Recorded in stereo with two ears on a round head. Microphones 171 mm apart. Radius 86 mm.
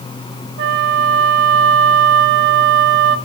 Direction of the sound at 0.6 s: 60° right (ahead or behind).